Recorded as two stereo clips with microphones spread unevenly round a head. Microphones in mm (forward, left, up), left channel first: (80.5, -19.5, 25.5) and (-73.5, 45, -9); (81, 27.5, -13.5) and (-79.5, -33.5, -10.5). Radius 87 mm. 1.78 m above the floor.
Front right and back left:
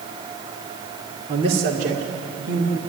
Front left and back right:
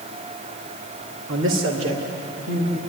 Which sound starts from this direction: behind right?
A man speaking, at 1.3 s.